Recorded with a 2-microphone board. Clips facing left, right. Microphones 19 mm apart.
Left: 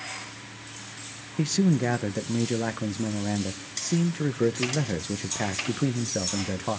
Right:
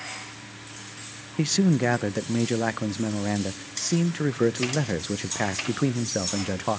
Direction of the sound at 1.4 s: 20° right (ahead or behind).